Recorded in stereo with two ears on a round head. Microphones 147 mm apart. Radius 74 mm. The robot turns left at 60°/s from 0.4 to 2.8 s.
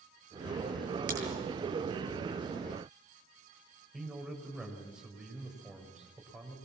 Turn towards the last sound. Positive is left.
turn(degrees=-5)  # may be behind; listen again after turning